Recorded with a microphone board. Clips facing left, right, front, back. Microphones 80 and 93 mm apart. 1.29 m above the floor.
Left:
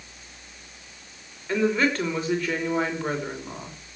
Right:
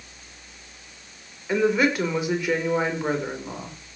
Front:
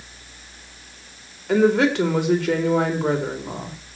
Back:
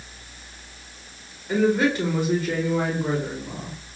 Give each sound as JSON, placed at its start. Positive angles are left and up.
{"t": 1.5, "sound": "a woman speaking", "azimuth_deg": -10, "distance_m": 5.0}